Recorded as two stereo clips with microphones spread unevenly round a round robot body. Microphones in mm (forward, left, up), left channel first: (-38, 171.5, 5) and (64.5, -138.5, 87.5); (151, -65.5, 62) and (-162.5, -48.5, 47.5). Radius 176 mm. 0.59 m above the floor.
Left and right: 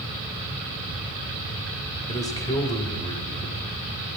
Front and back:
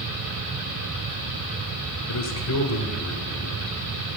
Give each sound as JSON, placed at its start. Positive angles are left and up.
{"t": 2.1, "sound": "a man speaking", "azimuth_deg": 35, "distance_m": 2.5}